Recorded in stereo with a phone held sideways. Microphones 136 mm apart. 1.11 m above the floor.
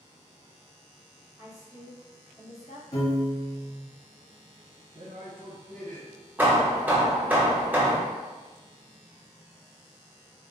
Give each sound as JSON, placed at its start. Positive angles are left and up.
{"t": 1.4, "sound": "a woman speaking", "side_deg": -20, "distance_m": 0.7}
{"t": 2.9, "sound": "a piano", "side_deg": 45, "distance_m": 1.2}
{"t": 5.0, "sound": "a man speaking", "side_deg": -70, "distance_m": 0.8}
{"t": 6.4, "sound": "hammering", "side_deg": -10, "distance_m": 0.7}